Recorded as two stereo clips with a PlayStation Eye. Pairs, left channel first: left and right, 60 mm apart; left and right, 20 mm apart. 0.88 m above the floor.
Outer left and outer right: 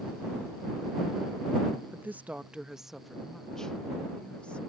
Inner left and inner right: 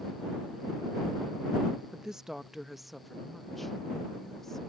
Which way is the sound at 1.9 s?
35° right (ahead or behind).